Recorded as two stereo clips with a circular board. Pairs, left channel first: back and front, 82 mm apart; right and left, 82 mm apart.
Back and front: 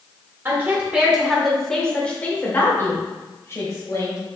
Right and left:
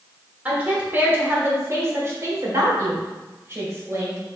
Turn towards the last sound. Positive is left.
turn(degrees=140)